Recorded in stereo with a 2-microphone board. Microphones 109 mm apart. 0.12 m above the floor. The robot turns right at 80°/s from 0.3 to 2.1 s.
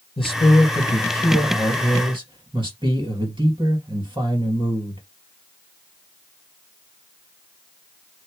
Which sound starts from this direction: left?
A man speaking, at 0.2 s.